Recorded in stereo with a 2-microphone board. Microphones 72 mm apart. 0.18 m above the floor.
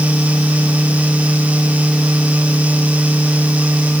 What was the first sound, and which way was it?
Only background noise.